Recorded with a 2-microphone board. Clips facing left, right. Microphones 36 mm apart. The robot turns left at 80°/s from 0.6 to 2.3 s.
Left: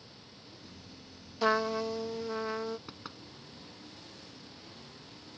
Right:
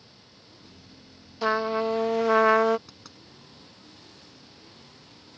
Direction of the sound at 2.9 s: 20° left (ahead or behind).